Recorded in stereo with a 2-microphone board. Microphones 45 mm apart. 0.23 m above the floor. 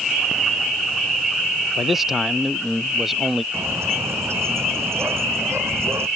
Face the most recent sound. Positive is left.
turn(degrees=-75)  # may be behind; listen again after turning